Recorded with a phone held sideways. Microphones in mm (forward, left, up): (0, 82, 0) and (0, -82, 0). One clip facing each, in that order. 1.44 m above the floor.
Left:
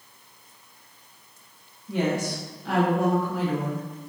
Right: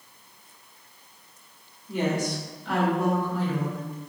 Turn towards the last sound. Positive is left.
turn(degrees=75)  # may be behind; listen again after turning